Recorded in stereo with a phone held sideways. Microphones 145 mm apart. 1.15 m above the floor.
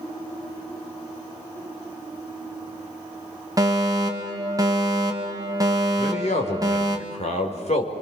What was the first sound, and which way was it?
A fire alarm, 25° right (ahead or behind).